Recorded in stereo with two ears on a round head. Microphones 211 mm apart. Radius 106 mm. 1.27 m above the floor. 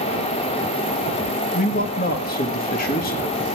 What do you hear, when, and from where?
1.5 s a man speaking: 40° left (ahead or behind), 1.4 m